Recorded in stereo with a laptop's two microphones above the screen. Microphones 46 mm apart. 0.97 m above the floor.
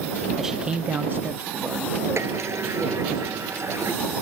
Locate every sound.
0.4 s a man speaking: 10° right (ahead or behind); by 3.2 s 30° right (ahead or behind)
2.2 s a sliding door: 70° right (ahead or behind)